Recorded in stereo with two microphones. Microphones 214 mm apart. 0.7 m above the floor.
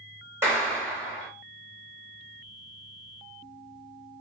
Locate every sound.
0.4 s a clap: 10° right (ahead or behind), 1.1 m